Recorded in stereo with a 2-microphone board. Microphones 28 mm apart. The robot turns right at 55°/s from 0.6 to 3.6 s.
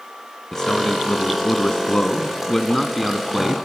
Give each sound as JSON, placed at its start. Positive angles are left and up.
{"t": 0.5, "sound": "a man speaking", "side_deg": 20, "distance_m": 1.2}